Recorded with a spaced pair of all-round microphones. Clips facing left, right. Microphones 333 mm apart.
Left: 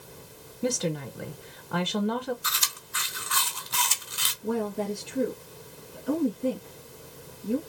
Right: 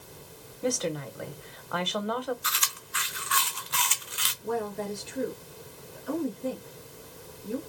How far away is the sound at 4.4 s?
About 2.5 m.